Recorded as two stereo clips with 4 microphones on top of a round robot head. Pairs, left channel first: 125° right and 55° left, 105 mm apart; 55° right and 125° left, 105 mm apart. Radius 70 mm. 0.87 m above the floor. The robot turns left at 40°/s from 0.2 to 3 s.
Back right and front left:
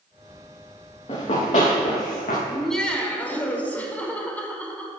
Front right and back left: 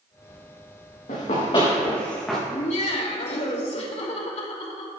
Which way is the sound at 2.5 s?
30° right.